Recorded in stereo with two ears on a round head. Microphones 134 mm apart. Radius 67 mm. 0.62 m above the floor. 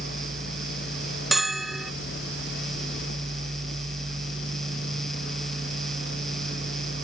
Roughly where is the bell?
Centre.